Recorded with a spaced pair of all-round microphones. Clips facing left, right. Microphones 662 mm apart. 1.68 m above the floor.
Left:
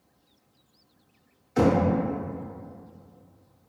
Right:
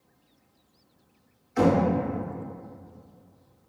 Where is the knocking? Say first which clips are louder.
Even; 65° left (ahead or behind), 0.7 m.